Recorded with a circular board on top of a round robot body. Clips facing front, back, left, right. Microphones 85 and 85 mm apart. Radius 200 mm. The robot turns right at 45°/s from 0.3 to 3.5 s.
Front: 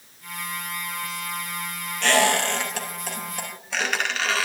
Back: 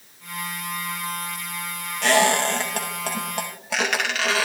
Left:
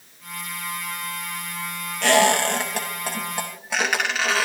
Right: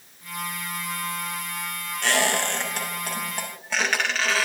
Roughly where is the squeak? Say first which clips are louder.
Back 2 dB, left 6 dB; left.